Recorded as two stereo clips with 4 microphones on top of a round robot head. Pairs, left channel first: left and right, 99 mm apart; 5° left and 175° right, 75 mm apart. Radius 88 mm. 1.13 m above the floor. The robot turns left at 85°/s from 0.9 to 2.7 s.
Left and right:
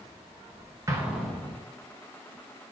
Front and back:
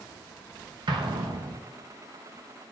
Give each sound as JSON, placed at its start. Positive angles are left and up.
{"t": 0.9, "sound": "an explosion", "azimuth_deg": -150, "distance_m": 0.6}